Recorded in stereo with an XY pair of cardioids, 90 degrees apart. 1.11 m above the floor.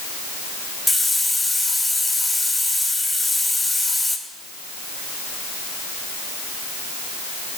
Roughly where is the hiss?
Ahead.